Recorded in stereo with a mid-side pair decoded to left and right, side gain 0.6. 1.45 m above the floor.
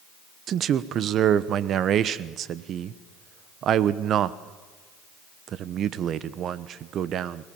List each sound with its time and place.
0.5 s a man speaking: 50° right, 1.0 m